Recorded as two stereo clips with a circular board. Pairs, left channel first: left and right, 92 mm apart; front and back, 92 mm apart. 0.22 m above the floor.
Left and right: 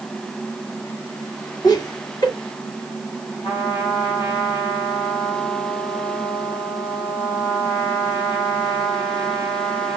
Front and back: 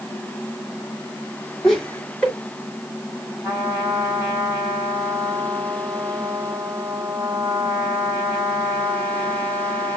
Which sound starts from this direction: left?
Laughter, at 1.6 s.